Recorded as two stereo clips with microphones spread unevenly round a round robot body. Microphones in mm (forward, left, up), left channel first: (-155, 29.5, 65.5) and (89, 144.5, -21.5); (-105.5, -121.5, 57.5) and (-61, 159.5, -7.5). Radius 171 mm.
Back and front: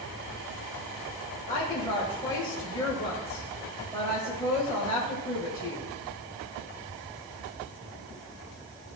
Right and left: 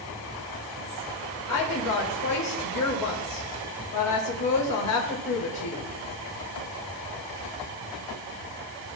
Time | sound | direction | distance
1.5 | a woman speaking | 65° right | 2.0 m